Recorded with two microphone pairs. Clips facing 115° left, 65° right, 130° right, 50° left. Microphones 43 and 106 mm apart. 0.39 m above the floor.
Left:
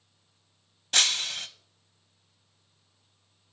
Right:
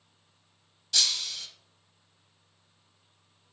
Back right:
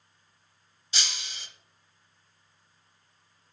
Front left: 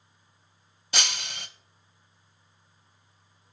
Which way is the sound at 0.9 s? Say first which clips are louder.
Left 4 dB, front left 6 dB; 75° left.